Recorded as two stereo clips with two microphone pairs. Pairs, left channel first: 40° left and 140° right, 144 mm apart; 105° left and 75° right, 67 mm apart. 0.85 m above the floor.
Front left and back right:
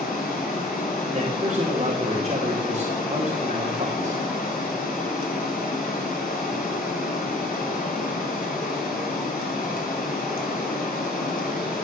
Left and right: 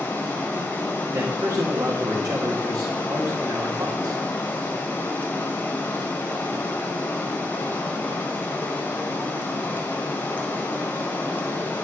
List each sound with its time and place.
0.0 s running water: 40° left, 2.5 m
1.1 s a man speaking: 100° right, 2 m